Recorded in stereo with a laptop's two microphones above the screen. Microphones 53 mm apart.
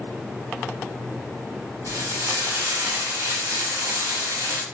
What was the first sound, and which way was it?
Frying, 70° right (ahead or behind).